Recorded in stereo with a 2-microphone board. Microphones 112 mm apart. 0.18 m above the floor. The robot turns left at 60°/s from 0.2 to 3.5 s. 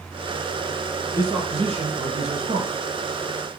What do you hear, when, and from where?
1.1 s a man speaking: 25° right, 6 m; by 2.7 s 120° right, 6 m